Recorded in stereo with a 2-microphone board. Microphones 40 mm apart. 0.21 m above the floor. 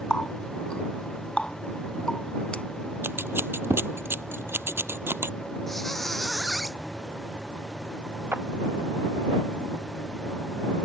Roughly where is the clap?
Right.